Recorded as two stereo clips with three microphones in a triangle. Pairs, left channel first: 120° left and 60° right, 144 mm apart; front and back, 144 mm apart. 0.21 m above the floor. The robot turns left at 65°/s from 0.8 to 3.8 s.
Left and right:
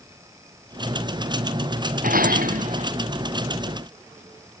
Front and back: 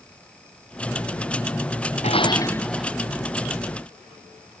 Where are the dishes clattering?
40° right; by 2.9 s 100° right.